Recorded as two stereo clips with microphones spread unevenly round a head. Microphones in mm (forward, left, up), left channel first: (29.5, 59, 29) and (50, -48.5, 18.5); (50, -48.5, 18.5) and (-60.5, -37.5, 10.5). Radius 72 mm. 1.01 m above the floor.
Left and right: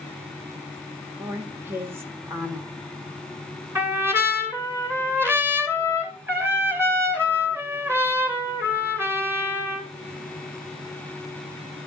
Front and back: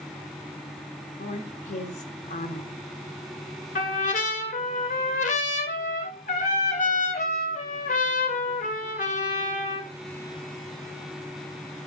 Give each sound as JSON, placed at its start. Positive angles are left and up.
{"t": 1.2, "sound": "a woman speaking", "azimuth_deg": -10, "distance_m": 1.7}
{"t": 3.8, "sound": "a trumpet", "azimuth_deg": -10, "distance_m": 2.5}